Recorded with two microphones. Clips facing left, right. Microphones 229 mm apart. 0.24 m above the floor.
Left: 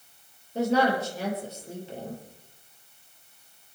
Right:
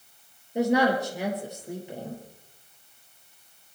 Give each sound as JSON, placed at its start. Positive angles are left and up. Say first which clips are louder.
{"t": 0.6, "sound": "a woman speaking", "louder": "right 1 dB", "side_deg": -15, "distance_m": 5.5}